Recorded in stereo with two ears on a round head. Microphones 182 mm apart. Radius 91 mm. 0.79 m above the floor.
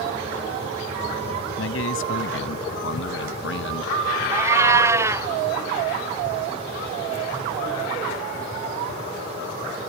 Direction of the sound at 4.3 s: 15° right (ahead or behind).